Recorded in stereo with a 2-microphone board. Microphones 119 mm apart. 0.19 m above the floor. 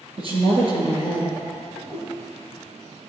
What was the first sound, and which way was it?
A woman speaking, 50° right (ahead or behind).